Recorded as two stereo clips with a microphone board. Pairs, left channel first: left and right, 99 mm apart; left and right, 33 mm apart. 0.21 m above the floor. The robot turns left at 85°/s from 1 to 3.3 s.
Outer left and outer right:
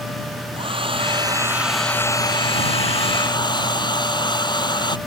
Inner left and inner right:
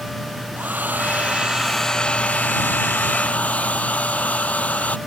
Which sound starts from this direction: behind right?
A hair dryer, at 0.6 s.